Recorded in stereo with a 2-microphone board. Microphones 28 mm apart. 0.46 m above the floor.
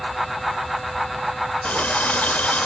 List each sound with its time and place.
1.6 s a running tap: 60° left (ahead or behind), 0.9 m